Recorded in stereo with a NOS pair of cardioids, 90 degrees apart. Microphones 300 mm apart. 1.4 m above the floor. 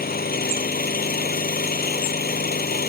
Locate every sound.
0.0 s an engine running: 30° left